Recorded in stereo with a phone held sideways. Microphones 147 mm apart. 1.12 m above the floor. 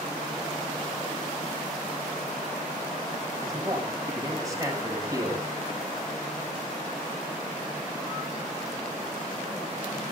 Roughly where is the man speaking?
Right.